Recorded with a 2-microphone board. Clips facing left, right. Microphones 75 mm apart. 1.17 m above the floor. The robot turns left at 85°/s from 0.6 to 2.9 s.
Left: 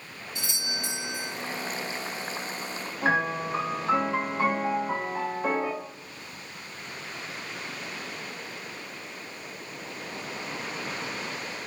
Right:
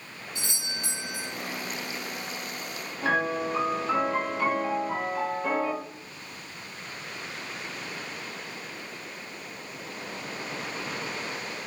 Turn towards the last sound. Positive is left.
turn(degrees=30)  # may be behind; listen again after turning